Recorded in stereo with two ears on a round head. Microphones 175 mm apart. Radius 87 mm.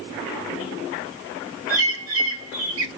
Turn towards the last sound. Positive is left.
turn(degrees=-70)  # may be behind; listen again after turning